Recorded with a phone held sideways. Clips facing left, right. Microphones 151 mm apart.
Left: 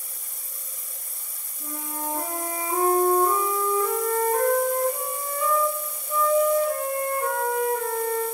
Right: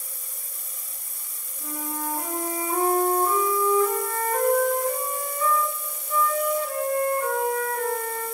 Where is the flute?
25° left (ahead or behind), 3.5 m.